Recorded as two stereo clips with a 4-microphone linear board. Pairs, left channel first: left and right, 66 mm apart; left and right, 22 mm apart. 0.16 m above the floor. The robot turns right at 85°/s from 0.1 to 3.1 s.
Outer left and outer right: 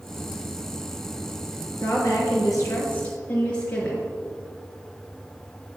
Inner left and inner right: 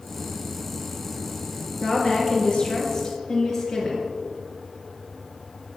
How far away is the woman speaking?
About 2.5 m.